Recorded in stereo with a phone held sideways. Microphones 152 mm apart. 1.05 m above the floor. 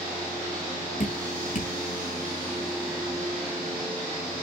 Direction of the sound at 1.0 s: 60° left (ahead or behind).